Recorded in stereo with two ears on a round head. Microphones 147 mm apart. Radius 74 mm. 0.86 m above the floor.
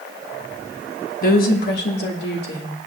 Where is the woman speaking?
50° left (ahead or behind), 1.4 m; by 2.8 s 75° left (ahead or behind), 3 m.